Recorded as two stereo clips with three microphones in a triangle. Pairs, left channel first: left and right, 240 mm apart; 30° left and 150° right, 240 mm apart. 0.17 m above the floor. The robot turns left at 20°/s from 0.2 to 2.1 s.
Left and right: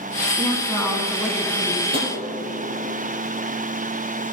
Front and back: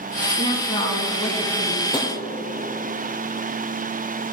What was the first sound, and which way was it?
A woman speaking, 40° left.